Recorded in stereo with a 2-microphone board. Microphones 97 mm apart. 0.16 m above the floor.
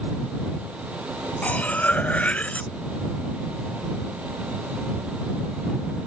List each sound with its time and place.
1.4 s cutlery clinking: 15° left (ahead or behind)